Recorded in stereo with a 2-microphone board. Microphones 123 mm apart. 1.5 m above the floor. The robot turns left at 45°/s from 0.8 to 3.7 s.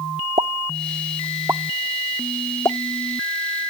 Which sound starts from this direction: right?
A pop, at 0.4 s.